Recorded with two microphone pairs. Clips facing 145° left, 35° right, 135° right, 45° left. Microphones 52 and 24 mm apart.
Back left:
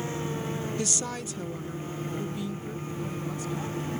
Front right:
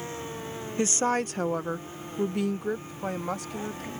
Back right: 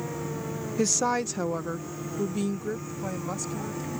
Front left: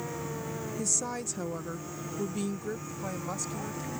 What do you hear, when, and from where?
0.8 s a woman speaking: 95° right; by 3.9 s 40° right